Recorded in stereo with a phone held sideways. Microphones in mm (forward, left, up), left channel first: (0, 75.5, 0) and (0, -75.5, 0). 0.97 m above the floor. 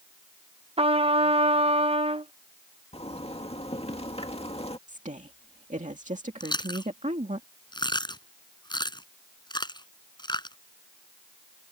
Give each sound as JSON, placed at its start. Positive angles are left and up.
{"t": 0.8, "sound": "a trumpet", "side_deg": -40}
{"t": 2.9, "sound": "a zipper", "side_deg": 40}
{"t": 4.9, "sound": "a woman speaking", "side_deg": -55}
{"t": 6.4, "sound": "chewing", "side_deg": 30}